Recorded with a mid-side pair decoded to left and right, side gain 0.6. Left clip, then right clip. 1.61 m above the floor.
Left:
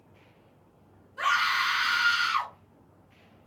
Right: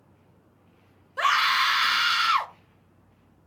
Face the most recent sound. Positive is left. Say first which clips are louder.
# right 4 dB
turn(degrees=-55)